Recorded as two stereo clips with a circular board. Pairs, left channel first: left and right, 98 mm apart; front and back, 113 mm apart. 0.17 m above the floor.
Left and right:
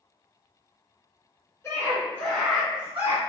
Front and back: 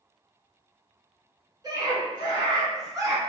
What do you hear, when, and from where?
1.6 s a scream: 145° left, 1.5 m; by 3.2 s 135° right, 1.2 m